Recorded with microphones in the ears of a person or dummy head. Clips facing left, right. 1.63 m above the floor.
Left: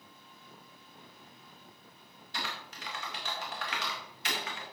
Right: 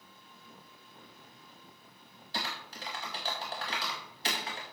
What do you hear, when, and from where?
2.3 s typing on a keyboard: 35° right (ahead or behind), 1.9 m